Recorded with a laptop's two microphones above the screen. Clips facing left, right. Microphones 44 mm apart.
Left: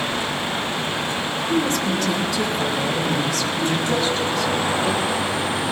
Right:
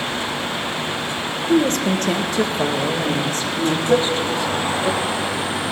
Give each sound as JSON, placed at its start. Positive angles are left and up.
{"t": 1.5, "sound": "a woman speaking", "side_deg": -50, "distance_m": 1.0}
{"t": 3.9, "sound": "a cowbell", "side_deg": -70, "distance_m": 2.0}